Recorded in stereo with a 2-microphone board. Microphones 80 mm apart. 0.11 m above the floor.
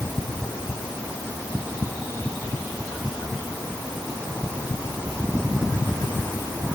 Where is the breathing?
No breathing in this recording.